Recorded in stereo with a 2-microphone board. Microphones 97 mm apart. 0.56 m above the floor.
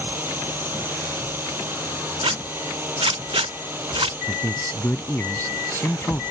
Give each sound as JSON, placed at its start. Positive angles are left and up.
{"t": 0.0, "sound": "a drone", "side_deg": -20}
{"t": 2.2, "sound": "a zipper", "side_deg": -80}
{"t": 4.3, "sound": "a man speaking", "side_deg": 25}